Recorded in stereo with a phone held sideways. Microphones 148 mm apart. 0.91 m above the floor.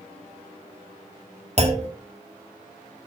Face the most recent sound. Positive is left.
turn(degrees=-45)  # may be behind; listen again after turning